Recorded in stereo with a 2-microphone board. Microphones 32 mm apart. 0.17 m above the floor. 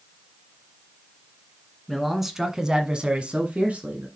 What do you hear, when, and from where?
1.9 s a man speaking: centre (ahead or behind), 1.5 m; by 4.1 s 45° right (ahead or behind), 1.7 m